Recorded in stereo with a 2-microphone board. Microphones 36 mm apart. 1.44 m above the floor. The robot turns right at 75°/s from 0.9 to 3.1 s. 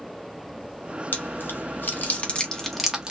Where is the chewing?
55° left (ahead or behind), 1.3 m; by 3.1 s 25° right (ahead or behind), 1.3 m.